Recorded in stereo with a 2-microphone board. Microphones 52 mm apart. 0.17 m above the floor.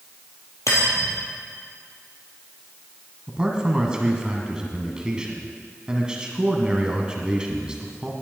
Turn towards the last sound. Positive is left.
turn(degrees=-15)  # may be behind; listen again after turning